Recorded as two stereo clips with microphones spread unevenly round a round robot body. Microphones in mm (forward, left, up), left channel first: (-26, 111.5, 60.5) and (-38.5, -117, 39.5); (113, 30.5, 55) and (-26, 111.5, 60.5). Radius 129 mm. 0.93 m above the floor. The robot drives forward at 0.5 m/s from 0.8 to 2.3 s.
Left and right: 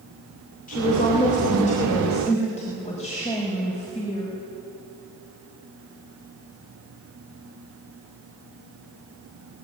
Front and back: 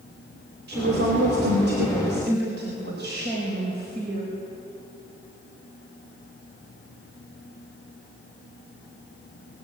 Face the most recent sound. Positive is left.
turn(degrees=150)